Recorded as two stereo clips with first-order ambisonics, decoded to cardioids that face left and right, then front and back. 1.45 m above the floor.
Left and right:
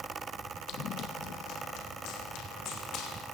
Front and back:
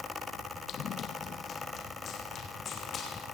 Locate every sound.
0.7 s running footsteps: 50° left, 2 m; by 3.2 s 65° left, 5.5 m